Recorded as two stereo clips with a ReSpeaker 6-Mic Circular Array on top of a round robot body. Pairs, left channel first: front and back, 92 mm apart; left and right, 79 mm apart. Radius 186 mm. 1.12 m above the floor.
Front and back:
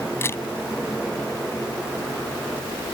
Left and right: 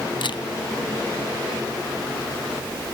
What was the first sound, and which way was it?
A camera shutter, 65° left.